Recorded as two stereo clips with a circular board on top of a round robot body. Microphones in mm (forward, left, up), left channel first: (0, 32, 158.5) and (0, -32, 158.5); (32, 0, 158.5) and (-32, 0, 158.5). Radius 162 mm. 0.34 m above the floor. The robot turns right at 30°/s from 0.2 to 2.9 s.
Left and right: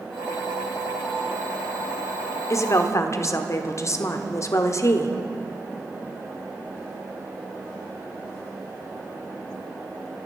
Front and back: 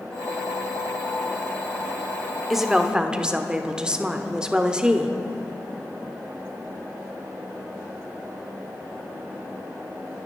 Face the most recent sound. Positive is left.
turn(degrees=105)